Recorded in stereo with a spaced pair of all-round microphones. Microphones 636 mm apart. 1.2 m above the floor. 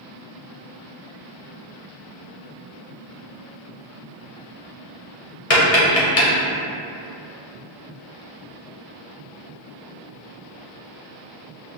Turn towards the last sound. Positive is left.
turn(degrees=55)  # may be behind; listen again after turning